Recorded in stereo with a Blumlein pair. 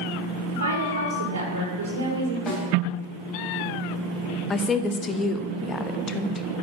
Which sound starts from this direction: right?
A woman speaking, at 0.5 s.